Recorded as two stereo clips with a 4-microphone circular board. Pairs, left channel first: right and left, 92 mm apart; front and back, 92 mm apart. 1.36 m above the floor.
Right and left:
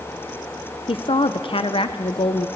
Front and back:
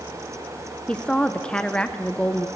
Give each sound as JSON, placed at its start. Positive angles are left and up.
{"t": 0.9, "sound": "a woman speaking", "azimuth_deg": -80, "distance_m": 1.0}